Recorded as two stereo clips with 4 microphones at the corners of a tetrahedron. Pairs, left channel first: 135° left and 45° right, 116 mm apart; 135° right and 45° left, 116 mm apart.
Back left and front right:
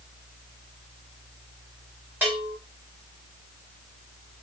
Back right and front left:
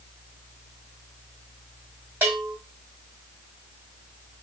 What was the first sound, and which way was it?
A bell, straight ahead.